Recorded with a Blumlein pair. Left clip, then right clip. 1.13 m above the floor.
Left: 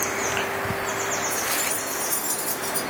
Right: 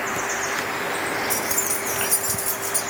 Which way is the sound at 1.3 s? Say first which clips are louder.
Right 1 dB; 50° right.